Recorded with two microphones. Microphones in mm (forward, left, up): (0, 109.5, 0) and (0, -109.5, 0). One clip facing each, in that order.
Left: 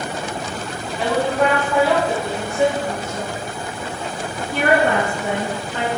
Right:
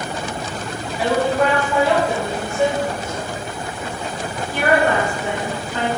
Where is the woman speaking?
10° right (ahead or behind), 1.7 m; by 5.9 s 60° left (ahead or behind), 3 m.